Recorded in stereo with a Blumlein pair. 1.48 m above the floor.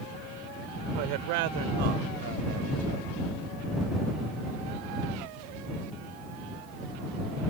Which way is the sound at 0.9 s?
45° right.